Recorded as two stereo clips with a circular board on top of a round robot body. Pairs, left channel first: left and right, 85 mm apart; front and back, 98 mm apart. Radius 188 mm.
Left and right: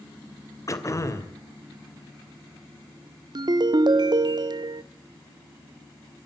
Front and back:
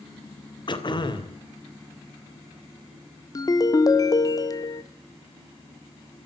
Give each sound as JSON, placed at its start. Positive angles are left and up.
{"t": 0.7, "sound": "throat clearing", "azimuth_deg": 40, "distance_m": 2.5}
{"t": 3.4, "sound": "a ringtone", "azimuth_deg": -55, "distance_m": 0.8}